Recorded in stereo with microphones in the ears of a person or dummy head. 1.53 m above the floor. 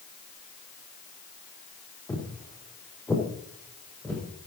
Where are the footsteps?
15° left (ahead or behind), 3.5 m; by 4.2 s 10° left (ahead or behind), 6.5 m.